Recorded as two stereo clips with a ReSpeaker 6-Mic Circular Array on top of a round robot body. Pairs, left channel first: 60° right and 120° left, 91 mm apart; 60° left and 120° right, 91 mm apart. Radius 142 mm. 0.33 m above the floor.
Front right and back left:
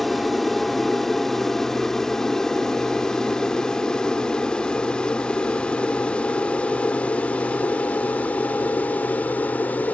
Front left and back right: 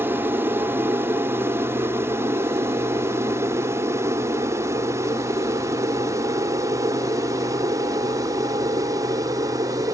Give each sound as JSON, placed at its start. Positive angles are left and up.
{"t": 0.0, "sound": "an aircraft", "azimuth_deg": -145}